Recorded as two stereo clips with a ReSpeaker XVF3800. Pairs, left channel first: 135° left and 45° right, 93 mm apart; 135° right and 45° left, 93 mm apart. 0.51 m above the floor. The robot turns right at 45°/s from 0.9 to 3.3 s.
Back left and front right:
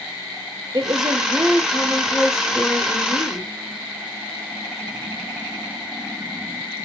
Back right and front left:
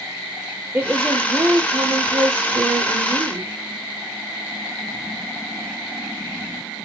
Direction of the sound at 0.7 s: 20° right.